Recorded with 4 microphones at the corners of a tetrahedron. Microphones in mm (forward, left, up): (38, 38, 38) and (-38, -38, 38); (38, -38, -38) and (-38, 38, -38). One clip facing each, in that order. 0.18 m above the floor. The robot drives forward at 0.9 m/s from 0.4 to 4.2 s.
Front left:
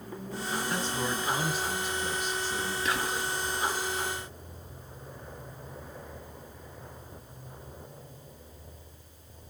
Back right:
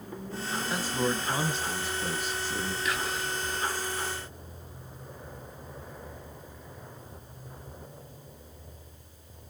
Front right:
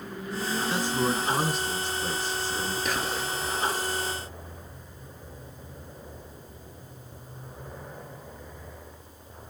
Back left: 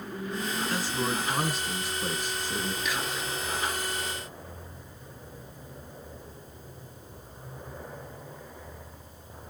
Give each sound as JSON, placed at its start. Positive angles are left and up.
{"t": 0.7, "sound": "a man speaking", "azimuth_deg": -50, "distance_m": 1.4}
{"t": 2.9, "sound": "whispering", "azimuth_deg": -10, "distance_m": 2.0}